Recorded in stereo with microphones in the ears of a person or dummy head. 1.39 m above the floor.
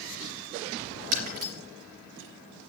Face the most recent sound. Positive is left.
turn(degrees=-50)  # may be behind; listen again after turning